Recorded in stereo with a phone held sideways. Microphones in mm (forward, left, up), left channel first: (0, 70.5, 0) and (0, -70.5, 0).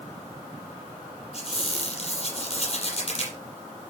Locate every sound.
1.3 s a squeak: 45° left (ahead or behind), 5 m